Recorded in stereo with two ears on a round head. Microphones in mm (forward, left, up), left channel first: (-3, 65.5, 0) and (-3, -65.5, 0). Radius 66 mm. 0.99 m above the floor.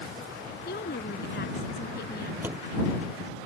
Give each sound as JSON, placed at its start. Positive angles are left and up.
{"t": 0.7, "sound": "a woman speaking", "side_deg": 70}
{"t": 2.4, "sound": "a door slam", "side_deg": -15}